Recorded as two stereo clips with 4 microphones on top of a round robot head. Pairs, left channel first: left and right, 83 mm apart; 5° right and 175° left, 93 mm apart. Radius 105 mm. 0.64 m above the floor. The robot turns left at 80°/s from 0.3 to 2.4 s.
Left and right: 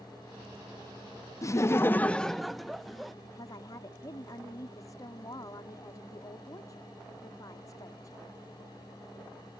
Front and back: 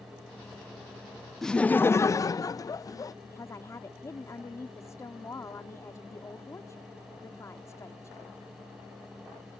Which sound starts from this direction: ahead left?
A woman speaking, at 3.2 s.